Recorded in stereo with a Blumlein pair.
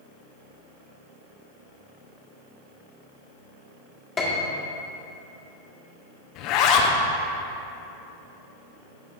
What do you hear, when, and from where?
4.2 s a piano: 20° left, 1.6 m
6.3 s a zipper: 40° left, 0.9 m